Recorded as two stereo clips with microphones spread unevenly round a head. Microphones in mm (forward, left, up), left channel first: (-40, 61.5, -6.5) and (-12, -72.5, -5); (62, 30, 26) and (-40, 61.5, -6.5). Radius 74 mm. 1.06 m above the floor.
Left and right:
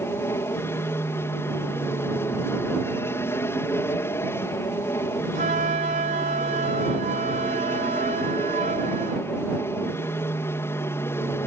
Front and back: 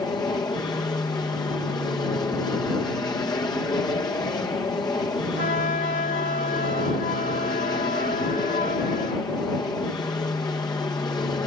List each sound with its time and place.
0.0 s an aircraft: 35° left
5.3 s a flute: 30° right